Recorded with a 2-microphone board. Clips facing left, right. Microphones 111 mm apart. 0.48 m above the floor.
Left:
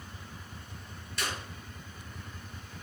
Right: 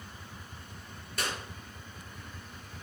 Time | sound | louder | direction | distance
1.2 | a clap | right 1 dB | 50° right (ahead or behind) | 6.5 m